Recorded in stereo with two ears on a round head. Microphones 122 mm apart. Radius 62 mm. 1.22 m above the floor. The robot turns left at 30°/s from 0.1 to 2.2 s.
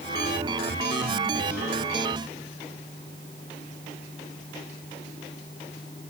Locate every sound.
Only background noise.